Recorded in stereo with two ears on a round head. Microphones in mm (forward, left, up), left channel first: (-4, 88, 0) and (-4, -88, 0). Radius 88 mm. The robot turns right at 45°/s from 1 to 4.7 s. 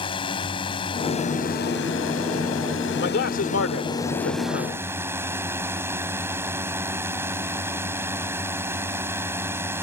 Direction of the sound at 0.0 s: 25° left.